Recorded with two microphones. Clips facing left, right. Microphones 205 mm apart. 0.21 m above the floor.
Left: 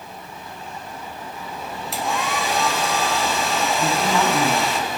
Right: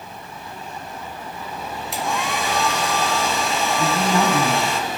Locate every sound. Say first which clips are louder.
1.9 s a hair dryer: even; centre (ahead or behind), 1.4 m
3.8 s a woman speaking: right 2 dB; 40° right (ahead or behind), 1.4 m